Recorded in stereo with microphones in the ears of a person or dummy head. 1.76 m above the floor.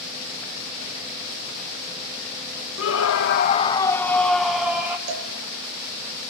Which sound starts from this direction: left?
A scream, at 2.8 s.